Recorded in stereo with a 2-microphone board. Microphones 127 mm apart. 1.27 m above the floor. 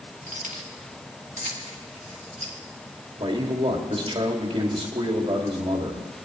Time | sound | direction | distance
0.3 | keys jangling | 80° right | 1.7 m
3.2 | a man speaking | 45° right (ahead or behind) | 2 m